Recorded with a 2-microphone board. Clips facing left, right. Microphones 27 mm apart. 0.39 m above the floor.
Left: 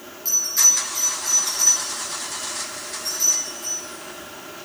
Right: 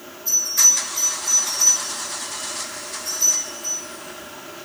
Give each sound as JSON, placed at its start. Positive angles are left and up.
{"t": 0.2, "sound": "a bell", "side_deg": 85, "distance_m": 6.0}